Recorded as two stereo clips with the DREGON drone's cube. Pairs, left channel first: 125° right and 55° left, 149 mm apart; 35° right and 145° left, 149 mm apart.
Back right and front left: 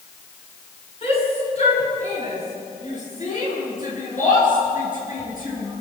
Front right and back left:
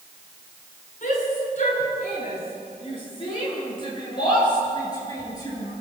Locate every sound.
1.0 s a shout: 75° right, 8 m; by 5.7 s 100° right, 13 m